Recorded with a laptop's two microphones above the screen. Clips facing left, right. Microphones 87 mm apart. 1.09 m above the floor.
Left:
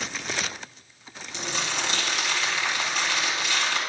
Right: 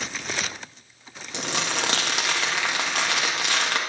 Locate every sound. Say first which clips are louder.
1.3 s crumpling: right 3 dB; 65° right (ahead or behind), 1.4 m